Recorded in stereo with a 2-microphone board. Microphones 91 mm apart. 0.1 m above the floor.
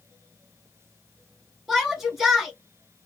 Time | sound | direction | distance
1.7 | a shout | 5° right (ahead or behind) | 1.4 m